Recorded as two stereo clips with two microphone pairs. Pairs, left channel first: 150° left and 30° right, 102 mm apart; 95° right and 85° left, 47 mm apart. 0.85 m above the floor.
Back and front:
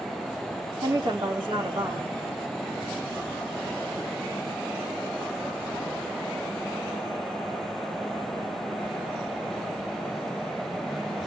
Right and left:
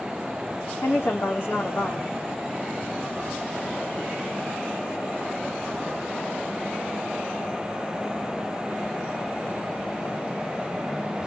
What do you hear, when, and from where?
0.8 s a woman speaking: 65° right, 1.7 m